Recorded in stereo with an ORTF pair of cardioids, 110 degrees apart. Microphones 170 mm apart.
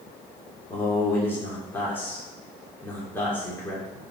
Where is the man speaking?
10° left, 3 m.